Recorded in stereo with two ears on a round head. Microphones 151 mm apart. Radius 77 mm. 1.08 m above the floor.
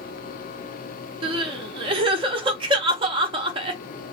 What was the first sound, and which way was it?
Crying, 30° right (ahead or behind).